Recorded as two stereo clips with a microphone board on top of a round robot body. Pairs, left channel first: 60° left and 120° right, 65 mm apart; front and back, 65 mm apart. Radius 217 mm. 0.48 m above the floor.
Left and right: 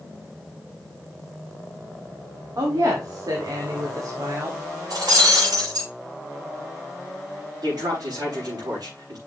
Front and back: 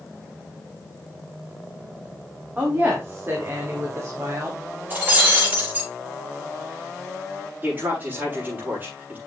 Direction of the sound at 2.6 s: 120° right.